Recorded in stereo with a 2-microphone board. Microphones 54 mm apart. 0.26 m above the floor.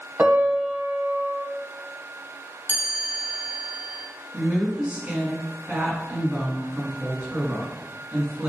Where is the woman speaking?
25° right (ahead or behind), 2.5 m.